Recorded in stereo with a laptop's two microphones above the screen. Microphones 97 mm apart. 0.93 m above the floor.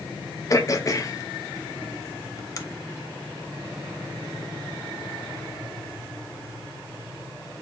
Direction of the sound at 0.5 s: 35° left (ahead or behind).